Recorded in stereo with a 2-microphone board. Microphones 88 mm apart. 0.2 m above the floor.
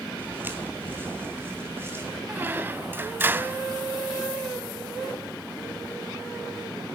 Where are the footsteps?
20° right (ahead or behind), 3.5 m; by 2.2 s 25° right (ahead or behind), 5.5 m.